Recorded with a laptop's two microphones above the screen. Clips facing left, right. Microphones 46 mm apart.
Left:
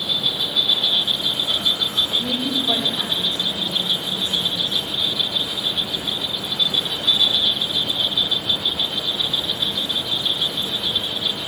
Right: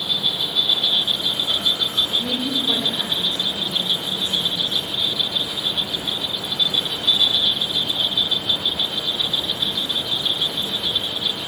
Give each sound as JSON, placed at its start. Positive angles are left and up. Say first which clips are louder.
{"t": 0.0, "sound": "an insect", "louder": "even", "side_deg": 75, "distance_m": 4.0}
{"t": 2.1, "sound": "a woman speaking", "louder": "even", "side_deg": 75, "distance_m": 2.5}